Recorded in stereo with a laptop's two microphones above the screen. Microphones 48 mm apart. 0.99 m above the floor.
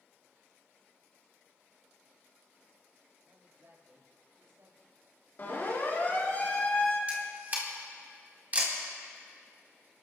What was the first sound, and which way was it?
A man speaking, 50° right (ahead or behind).